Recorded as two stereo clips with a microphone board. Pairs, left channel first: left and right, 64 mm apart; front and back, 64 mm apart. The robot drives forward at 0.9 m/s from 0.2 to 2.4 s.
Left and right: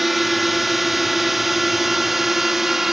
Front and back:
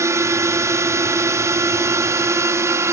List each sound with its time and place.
0.0 s a drone: 175° right